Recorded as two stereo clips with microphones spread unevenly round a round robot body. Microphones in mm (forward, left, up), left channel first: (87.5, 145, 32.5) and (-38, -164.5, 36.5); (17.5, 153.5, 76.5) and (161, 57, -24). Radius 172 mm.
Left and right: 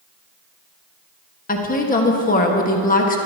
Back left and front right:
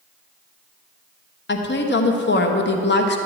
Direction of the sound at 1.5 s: 115° left.